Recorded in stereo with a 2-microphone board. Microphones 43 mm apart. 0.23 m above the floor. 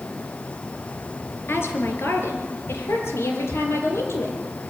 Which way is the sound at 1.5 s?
65° left (ahead or behind).